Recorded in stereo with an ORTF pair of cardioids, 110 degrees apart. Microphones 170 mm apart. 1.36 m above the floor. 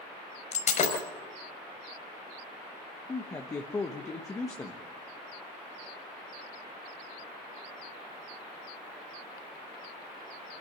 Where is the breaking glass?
45° left, 5 m.